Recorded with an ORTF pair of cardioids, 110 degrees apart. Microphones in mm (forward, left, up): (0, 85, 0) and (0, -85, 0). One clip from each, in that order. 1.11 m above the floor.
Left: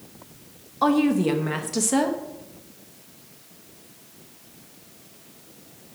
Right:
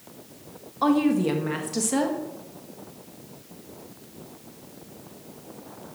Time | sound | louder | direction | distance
0.8 | a woman speaking | left 1 dB | 10° left | 1.1 m